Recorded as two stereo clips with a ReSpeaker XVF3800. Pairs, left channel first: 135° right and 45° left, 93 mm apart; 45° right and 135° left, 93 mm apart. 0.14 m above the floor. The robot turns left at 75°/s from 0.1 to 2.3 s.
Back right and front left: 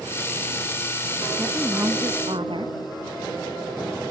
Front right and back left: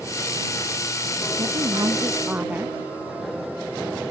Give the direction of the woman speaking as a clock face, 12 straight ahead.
8 o'clock.